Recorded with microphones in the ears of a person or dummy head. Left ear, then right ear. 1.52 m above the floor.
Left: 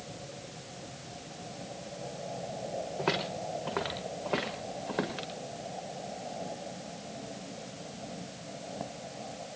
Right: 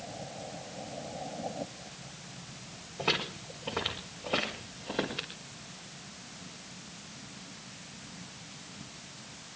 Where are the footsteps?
40° left (ahead or behind), 5.5 m; by 5.3 s 25° left (ahead or behind), 6 m.